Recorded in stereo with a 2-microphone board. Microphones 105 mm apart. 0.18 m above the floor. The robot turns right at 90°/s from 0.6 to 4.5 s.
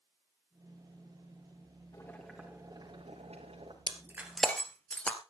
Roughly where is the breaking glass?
Right.